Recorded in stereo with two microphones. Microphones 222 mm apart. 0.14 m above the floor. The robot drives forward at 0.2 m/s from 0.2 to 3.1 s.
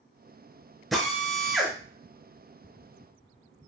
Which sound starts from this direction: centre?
A drill, at 0.9 s.